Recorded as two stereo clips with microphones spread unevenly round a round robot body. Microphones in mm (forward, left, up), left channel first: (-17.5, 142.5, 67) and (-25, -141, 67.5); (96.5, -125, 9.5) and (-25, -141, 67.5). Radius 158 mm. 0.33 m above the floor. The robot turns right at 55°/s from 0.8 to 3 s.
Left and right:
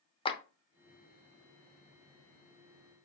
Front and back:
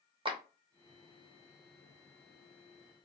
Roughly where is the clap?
Behind left.